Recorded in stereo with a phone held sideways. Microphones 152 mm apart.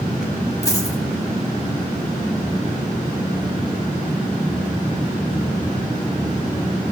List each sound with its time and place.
0.6 s a dropped coin: 20° left (ahead or behind), 1.5 m